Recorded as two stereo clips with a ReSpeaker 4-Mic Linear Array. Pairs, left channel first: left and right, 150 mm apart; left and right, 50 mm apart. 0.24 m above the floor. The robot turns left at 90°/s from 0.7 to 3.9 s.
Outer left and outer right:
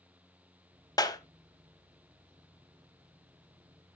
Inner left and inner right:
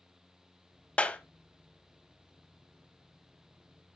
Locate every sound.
1.0 s a clap: 25° left (ahead or behind), 1.1 m